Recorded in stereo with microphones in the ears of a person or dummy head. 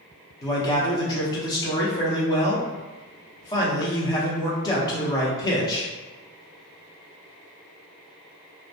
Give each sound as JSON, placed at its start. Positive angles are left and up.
{"t": 0.4, "sound": "a man speaking", "side_deg": 25, "distance_m": 0.7}